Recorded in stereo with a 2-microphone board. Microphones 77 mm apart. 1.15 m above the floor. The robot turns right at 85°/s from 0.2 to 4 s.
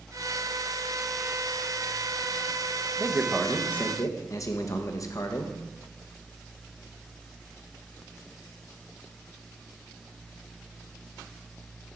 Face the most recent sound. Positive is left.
turn(degrees=45)